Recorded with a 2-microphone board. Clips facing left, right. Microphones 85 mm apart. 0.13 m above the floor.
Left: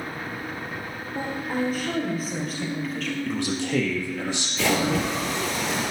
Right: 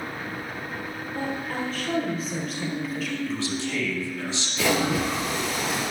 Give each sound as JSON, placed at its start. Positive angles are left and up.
{"t": 1.1, "sound": "a woman speaking", "side_deg": 20, "distance_m": 3.0}
{"t": 3.3, "sound": "a man speaking", "side_deg": 55, "distance_m": 2.0}
{"t": 4.6, "sound": "a splash", "side_deg": 0, "distance_m": 3.0}